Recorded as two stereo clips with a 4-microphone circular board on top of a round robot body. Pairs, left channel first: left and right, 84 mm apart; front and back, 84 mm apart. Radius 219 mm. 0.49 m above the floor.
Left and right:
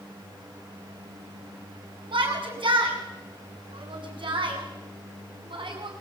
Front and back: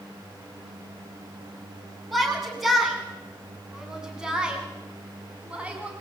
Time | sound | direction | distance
2.1 | a shout | 90° right | 8 m